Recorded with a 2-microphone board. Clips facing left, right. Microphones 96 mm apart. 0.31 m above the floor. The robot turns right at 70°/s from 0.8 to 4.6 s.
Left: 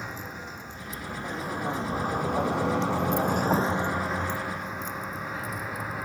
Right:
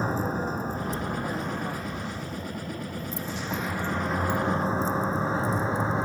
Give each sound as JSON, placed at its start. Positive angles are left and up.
{"t": 0.0, "sound": "a vehicle", "side_deg": -35}